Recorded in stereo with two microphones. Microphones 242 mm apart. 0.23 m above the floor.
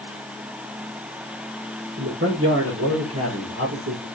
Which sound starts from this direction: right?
A man speaking, at 2.0 s.